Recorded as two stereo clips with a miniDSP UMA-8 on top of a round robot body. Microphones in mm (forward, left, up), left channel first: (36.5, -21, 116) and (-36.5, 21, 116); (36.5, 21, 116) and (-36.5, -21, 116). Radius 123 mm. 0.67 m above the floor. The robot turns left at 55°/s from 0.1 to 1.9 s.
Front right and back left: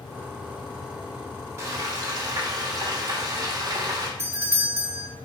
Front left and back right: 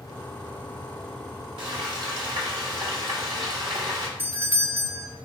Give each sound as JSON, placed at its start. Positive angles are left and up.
{"t": 1.6, "sound": "frying", "azimuth_deg": -155, "distance_m": 2.0}
{"t": 4.2, "sound": "a doorbell", "azimuth_deg": 170, "distance_m": 1.5}